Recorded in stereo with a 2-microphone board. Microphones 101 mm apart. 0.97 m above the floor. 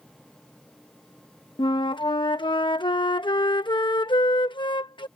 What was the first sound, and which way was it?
A flute, 55° left (ahead or behind).